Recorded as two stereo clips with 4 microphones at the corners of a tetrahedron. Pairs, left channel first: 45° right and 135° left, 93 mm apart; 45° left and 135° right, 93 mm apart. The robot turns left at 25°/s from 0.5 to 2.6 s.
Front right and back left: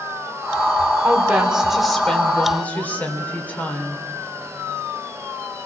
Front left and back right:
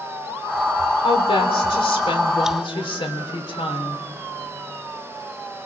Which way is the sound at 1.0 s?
65° left.